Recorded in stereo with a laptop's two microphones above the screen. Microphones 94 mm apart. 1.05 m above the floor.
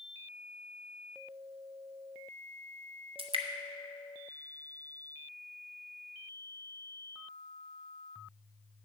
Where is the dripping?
70° right (ahead or behind), 0.7 m.